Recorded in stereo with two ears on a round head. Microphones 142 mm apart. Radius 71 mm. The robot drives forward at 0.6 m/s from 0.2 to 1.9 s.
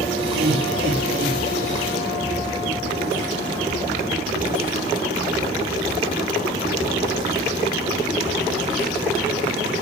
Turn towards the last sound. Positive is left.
turn(degrees=-70)  # may be behind; listen again after turning